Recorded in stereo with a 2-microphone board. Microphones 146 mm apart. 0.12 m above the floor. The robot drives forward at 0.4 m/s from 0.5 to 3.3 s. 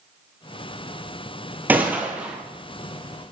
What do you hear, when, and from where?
1.7 s a gunshot: 10° right (ahead or behind), 0.7 m